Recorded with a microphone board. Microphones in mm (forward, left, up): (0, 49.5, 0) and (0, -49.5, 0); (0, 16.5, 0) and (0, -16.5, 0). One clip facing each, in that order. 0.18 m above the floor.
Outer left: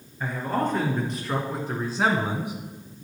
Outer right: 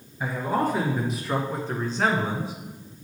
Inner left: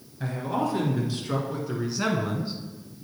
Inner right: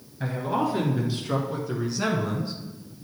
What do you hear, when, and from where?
0.2 s a man speaking: 10° right (ahead or behind), 2.5 m; by 2.5 s 20° left (ahead or behind), 1.5 m